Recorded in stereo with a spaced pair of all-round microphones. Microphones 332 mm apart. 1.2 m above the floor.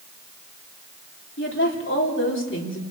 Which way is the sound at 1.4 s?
40° left (ahead or behind).